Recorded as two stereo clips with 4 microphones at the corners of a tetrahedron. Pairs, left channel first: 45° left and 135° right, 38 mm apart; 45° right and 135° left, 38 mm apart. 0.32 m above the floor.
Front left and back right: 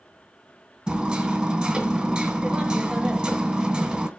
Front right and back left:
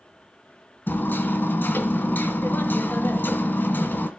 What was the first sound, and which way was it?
Hammering, 75° right.